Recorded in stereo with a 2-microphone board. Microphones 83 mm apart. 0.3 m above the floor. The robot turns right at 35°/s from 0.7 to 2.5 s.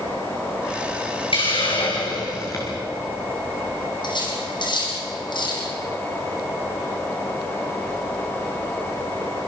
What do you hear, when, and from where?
1.3 s a hiss: 100° left, 6 m; by 2.7 s 140° left, 6 m
4.0 s cutlery clinking: 60° left (ahead or behind), 7.5 m